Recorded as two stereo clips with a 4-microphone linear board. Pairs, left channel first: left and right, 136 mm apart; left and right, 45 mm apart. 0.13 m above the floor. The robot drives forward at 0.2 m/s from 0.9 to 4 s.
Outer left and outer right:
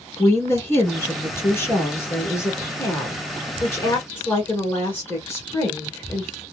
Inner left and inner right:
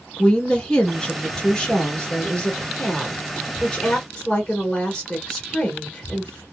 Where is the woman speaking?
20° left (ahead or behind), 1.2 m.